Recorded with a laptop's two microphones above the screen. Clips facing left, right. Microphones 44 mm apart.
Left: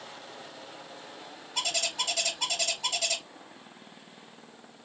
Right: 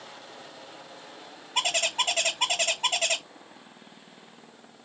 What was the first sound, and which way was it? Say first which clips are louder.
A bird: right 5 dB; 45° right (ahead or behind).